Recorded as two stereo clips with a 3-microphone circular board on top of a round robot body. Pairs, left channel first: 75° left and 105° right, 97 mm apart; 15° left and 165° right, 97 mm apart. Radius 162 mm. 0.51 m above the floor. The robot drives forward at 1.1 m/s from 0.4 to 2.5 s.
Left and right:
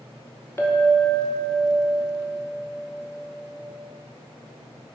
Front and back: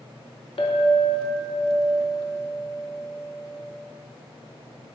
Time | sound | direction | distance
0.6 | a clink | 10° left | 1.0 m